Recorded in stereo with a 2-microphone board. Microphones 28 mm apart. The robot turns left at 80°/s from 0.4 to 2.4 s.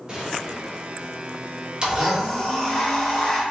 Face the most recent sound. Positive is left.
turn(degrees=160)